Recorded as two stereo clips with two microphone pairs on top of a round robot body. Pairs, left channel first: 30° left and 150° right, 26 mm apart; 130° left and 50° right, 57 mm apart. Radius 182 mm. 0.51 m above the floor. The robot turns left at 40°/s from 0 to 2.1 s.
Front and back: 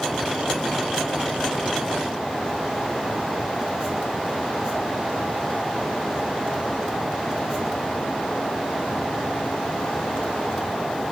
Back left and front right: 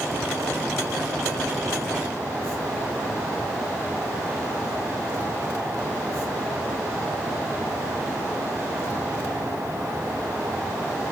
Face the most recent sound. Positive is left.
No sound to turn to.